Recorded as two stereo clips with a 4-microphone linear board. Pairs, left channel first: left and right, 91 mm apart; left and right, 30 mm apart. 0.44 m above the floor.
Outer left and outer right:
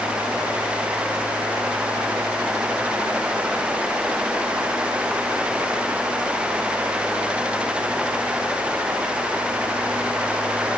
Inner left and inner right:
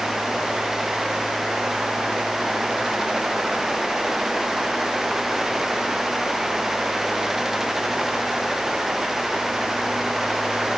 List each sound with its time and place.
Only background noise.